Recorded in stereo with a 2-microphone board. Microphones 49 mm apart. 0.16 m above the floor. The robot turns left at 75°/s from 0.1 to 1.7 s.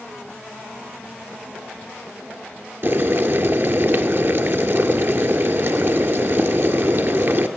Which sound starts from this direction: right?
Boiling, at 2.8 s.